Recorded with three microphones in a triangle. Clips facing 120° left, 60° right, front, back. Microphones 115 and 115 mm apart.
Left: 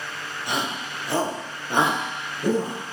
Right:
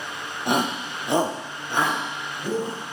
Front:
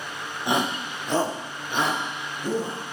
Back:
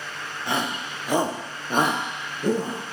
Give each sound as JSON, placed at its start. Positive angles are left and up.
{"t": 0.5, "sound": "a shout", "azimuth_deg": -65, "distance_m": 0.9}